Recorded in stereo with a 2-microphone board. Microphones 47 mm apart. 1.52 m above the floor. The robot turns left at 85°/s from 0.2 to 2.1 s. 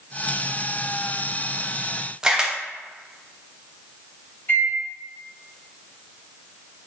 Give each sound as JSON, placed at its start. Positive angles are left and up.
{"t": 2.2, "sound": "a camera shutter", "side_deg": -15, "distance_m": 0.5}
{"t": 4.5, "sound": "a microwave", "side_deg": 50, "distance_m": 1.6}